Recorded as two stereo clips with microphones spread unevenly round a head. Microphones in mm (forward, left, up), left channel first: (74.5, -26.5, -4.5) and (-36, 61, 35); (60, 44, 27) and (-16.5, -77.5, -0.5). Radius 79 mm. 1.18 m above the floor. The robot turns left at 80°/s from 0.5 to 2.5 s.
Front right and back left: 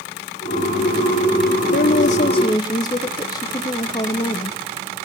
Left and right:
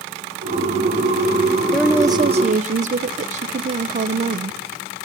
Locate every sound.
1.7 s a woman speaking: 35° right, 0.5 m; by 4.6 s 95° right, 0.5 m